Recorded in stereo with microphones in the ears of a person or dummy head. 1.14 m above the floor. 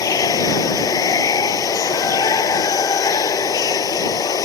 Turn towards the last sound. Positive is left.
turn(degrees=20)  # may be behind; listen again after turning